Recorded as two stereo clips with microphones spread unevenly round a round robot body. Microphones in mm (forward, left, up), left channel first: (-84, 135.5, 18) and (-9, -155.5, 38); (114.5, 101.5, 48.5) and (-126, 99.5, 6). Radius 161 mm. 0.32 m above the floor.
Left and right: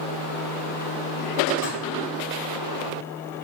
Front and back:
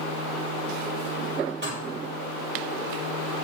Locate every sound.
1.6 s dishes clattering: 140° left, 7 m